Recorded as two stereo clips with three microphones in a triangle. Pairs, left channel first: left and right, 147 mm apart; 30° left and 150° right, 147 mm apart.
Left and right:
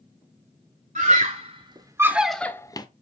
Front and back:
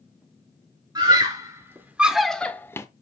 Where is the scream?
95° right, 1.3 m; by 2.9 s 80° left, 0.9 m.